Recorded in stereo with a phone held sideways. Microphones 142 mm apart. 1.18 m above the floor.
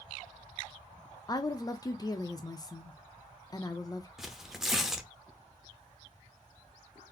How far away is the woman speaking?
About 0.7 m.